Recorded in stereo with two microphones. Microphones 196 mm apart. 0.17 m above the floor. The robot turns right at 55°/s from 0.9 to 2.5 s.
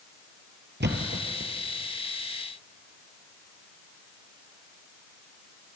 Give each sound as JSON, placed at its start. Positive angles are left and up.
{"t": 0.8, "sound": "a thud", "side_deg": -65, "distance_m": 2.0}